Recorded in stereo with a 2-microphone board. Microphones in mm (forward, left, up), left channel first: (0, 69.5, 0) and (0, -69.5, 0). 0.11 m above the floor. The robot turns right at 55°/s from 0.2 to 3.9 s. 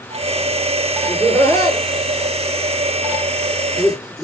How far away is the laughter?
About 1.9 m.